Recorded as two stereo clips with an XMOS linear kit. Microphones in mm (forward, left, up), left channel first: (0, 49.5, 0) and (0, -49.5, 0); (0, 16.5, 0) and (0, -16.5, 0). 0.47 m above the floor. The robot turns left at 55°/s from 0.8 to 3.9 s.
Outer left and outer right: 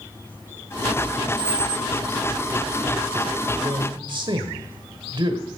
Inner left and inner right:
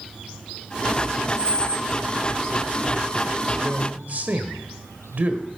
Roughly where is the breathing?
I don't hear breathing.